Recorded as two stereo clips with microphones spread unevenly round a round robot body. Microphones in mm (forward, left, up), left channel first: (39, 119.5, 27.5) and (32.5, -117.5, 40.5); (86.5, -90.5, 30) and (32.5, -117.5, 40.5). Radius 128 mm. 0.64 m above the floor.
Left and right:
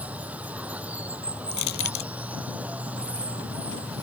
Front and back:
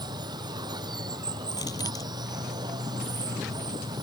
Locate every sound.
0.0 s running water: 175° right
1.5 s crushing: 85° left